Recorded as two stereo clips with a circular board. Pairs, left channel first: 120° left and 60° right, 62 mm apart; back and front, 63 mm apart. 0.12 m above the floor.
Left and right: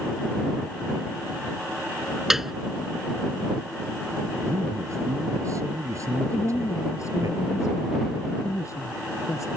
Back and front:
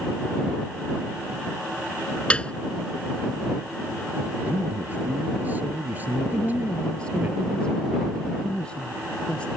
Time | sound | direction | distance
2.3 | a piano | 135° right | ?
4.5 | a man speaking | 55° right | ?
6.3 | a woman speaking | 110° left | ?